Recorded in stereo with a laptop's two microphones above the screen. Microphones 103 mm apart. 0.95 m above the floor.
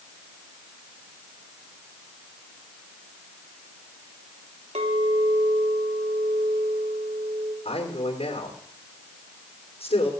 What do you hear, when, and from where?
4.8 s a clink: 85° right, 2.5 m
7.7 s a man speaking: 80° left, 3.5 m